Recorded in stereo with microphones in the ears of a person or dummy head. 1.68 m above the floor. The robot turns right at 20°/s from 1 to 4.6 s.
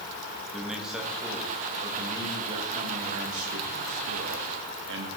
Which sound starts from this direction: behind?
A man speaking, at 0.5 s.